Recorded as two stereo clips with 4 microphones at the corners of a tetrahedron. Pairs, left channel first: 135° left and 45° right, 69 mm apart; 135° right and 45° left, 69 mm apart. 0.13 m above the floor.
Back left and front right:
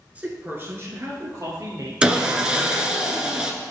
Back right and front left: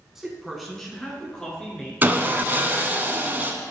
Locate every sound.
0.1 s a man speaking: 25° right, 1.2 m; by 1.9 s 60° right, 2 m
2.0 s sawing: 20° left, 0.7 m